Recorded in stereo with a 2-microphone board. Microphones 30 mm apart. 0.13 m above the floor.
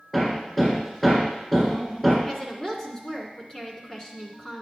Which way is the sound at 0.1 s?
10° left (ahead or behind).